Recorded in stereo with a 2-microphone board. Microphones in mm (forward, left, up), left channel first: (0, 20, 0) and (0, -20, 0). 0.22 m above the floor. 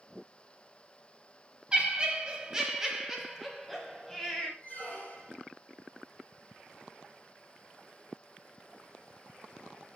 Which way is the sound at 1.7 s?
25° right (ahead or behind).